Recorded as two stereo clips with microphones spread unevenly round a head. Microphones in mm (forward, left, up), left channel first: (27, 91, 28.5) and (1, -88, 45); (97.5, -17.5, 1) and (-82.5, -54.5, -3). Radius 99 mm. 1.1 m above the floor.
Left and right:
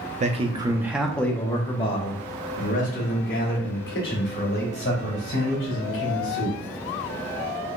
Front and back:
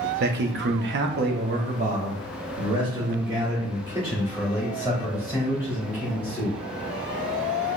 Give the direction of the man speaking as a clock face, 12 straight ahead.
5 o'clock.